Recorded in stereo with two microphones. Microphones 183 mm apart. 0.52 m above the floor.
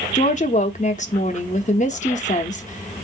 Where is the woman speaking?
40° left (ahead or behind), 0.8 m.